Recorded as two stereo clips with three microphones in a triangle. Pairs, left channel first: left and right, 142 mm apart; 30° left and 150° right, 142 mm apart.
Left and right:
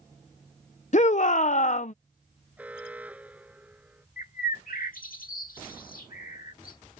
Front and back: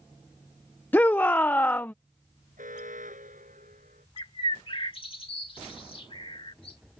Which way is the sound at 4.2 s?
80° left.